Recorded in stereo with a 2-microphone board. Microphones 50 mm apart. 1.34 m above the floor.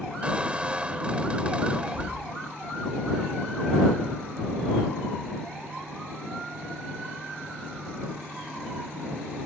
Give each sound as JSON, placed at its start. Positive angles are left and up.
{"t": 0.2, "sound": "a squeak", "side_deg": -20}